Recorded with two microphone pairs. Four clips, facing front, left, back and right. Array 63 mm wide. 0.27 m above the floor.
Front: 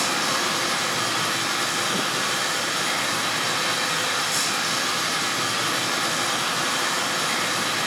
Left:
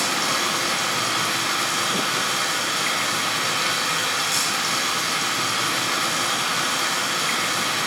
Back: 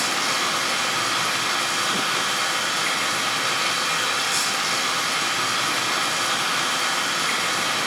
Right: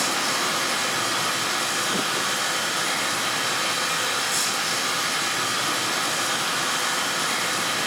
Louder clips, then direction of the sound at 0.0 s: Left 1 dB, even; 130° left.